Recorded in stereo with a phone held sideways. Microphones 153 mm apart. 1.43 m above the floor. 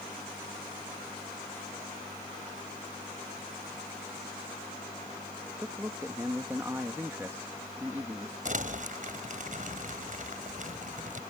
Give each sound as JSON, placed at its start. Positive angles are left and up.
{"t": 5.6, "sound": "a man speaking", "side_deg": -15}
{"t": 8.4, "sound": "crumpling", "side_deg": -55}